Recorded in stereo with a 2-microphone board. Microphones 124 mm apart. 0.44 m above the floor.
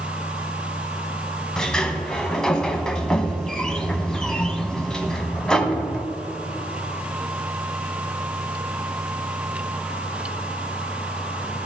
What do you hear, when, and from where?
1.6 s a sliding door: 5° left (ahead or behind), 0.7 m